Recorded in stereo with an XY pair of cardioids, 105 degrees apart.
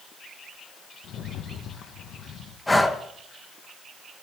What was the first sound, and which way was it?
A rattle, 70° left.